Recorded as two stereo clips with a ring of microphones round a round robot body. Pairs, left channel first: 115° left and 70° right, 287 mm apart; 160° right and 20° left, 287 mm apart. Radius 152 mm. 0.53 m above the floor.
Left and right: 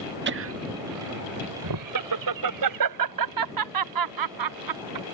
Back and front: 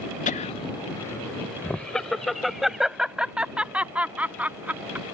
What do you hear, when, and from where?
0.3 s laughter: 100° right; by 5.0 s 60° right